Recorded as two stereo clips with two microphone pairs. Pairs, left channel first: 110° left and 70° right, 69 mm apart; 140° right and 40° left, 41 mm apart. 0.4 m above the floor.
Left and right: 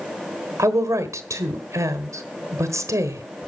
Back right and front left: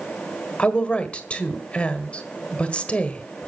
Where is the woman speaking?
90° right, 1.4 m.